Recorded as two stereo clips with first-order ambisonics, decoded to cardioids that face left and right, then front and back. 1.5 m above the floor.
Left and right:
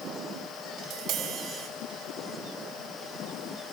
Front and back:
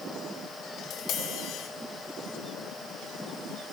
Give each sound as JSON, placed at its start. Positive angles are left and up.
{"t": 0.8, "sound": "tapping", "azimuth_deg": -45, "distance_m": 2.0}